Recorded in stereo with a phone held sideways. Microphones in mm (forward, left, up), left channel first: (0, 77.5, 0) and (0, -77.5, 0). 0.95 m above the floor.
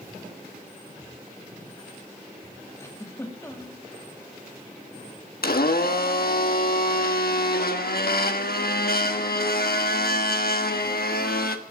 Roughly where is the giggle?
Centre.